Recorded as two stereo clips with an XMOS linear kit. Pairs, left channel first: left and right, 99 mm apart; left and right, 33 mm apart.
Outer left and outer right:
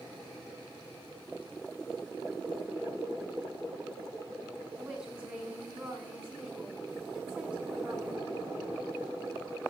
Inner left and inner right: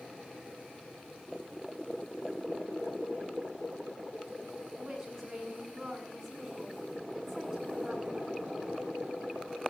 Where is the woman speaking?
10° right (ahead or behind), 8 m.